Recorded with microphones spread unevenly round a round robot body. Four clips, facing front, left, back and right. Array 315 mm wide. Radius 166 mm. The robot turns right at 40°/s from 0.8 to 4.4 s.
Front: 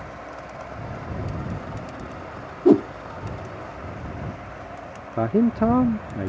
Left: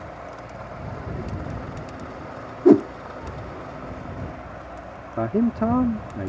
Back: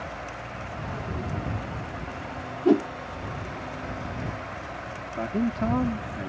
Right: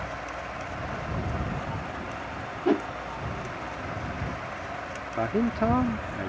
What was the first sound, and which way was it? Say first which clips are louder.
A whoosh: left 11 dB, front 5 dB; 65° left.